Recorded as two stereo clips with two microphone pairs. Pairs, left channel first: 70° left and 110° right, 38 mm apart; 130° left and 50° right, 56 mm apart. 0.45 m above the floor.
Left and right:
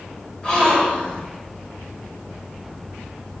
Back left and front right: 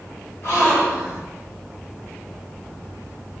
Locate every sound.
0.4 s a gasp: 135° left, 1.8 m